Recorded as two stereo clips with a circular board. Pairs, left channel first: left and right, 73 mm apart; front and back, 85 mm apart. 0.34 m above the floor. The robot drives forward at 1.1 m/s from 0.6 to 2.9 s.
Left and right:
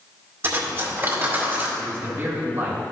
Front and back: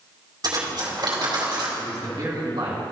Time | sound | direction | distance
0.4 | cutlery clinking | 150° right | 2.5 m
1.8 | a man speaking | 140° right | 2 m